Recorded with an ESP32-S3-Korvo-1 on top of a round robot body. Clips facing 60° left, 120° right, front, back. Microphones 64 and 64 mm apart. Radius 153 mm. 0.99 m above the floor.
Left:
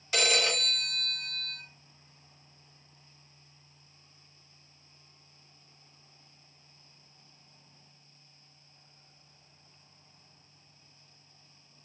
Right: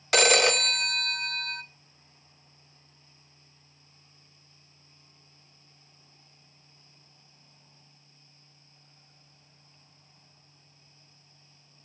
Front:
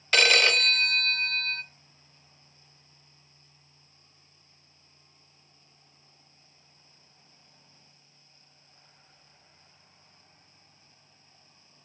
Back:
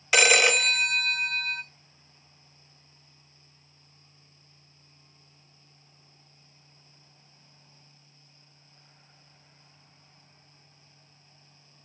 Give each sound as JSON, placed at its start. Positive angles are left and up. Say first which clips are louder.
{"t": 0.1, "sound": "a phone ringing", "louder": "right 7 dB, back 2 dB", "azimuth_deg": -100, "distance_m": 0.6}